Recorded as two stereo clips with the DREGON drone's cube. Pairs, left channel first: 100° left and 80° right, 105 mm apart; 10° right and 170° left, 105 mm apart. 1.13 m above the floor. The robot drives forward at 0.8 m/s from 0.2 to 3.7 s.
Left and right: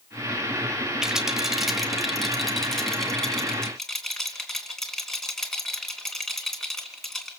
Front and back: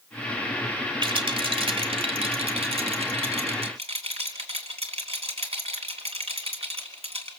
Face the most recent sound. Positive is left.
turn(degrees=-175)